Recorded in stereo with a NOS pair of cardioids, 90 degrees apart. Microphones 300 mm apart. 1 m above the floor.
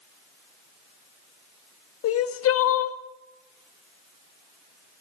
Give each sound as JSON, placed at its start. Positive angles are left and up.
{"t": 2.0, "sound": "crying", "azimuth_deg": 50, "distance_m": 1.3}